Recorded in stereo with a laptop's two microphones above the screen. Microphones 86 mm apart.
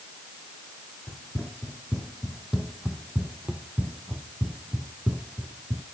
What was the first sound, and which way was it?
Running footsteps, centre (ahead or behind).